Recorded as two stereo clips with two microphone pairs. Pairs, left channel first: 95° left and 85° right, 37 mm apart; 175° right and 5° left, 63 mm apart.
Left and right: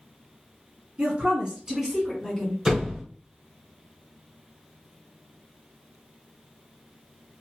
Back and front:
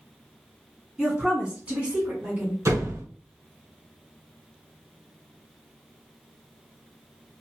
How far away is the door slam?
About 1.5 m.